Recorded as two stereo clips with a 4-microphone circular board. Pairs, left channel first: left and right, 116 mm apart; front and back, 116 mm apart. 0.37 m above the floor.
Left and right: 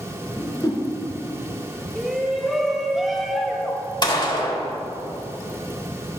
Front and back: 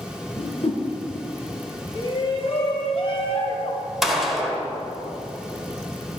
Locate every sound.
0.4 s a whoosh: 35° left, 1.7 m
1.9 s a shout: 5° right, 1.5 m
4.0 s a gunshot: 90° left, 1.4 m